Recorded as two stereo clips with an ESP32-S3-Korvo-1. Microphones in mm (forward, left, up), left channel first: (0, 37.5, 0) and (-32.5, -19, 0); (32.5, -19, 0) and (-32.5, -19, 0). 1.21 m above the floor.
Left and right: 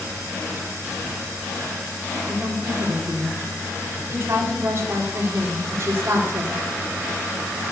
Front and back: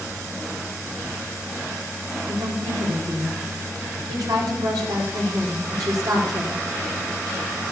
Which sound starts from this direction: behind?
A woman speaking, at 2.3 s.